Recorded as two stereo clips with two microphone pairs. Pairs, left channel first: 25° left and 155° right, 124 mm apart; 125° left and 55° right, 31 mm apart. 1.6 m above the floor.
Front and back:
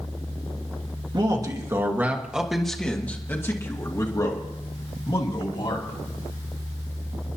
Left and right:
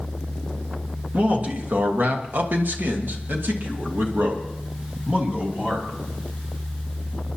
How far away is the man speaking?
About 1.7 m.